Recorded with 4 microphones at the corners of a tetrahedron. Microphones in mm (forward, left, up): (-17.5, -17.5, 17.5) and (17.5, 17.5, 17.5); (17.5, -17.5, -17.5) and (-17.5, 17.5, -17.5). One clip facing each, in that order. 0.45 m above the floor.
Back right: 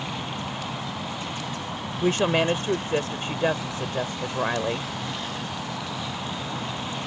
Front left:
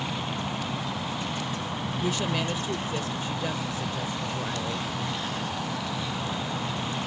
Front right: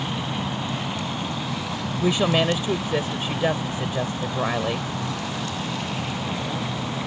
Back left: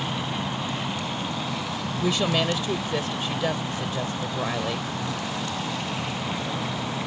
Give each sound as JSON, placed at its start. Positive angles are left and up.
{"t": 2.0, "sound": "a woman speaking", "azimuth_deg": -110}